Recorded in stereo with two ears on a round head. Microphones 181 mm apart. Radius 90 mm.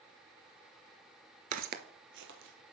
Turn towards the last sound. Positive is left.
turn(degrees=-70)  # may be behind; listen again after turning